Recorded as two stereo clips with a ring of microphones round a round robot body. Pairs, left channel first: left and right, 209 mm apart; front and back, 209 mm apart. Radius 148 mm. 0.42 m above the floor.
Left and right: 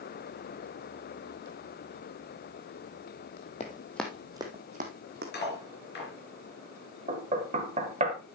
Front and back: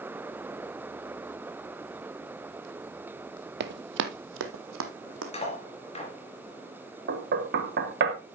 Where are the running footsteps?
155° left, 0.8 m; by 5.2 s 145° right, 1.3 m.